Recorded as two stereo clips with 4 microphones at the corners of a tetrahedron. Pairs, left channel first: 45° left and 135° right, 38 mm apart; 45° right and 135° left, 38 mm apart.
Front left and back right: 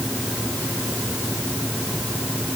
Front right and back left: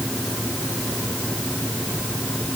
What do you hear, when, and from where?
Only background noise.